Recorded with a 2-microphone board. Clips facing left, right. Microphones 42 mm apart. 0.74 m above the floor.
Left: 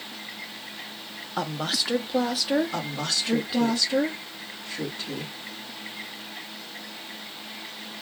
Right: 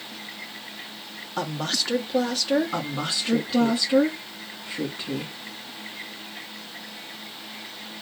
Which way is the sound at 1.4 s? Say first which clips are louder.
Even; 5° left (ahead or behind).